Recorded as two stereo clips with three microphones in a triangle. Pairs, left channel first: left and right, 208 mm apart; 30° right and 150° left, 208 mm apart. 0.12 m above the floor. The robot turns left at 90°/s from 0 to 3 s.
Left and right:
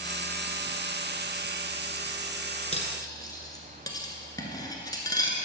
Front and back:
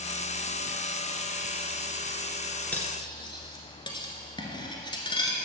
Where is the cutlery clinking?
50° left, 1.1 m; by 5.4 s 25° left, 1.1 m.